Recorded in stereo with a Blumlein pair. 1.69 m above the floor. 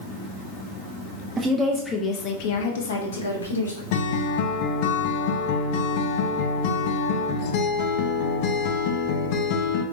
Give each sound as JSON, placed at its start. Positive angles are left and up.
{"t": 1.4, "sound": "a woman speaking", "azimuth_deg": -20, "distance_m": 0.7}
{"t": 3.9, "sound": "a guitar", "azimuth_deg": 50, "distance_m": 0.6}